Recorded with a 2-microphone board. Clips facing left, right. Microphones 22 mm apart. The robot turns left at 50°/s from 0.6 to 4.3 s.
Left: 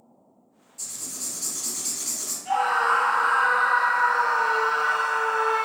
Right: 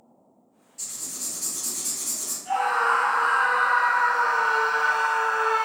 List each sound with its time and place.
0.8 s writing: 155° right, 1.9 m; by 2.4 s 125° left, 1.9 m
2.5 s a scream: 15° left, 1.2 m; by 5.6 s 75° right, 1.2 m